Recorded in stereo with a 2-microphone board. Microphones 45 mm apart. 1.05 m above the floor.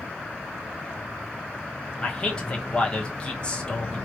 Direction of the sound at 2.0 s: 25° left (ahead or behind).